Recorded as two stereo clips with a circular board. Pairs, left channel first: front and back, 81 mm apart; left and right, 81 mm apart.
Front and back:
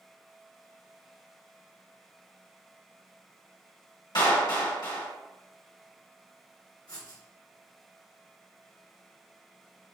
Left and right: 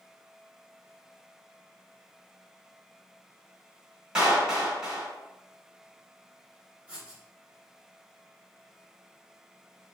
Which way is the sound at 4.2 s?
10° right.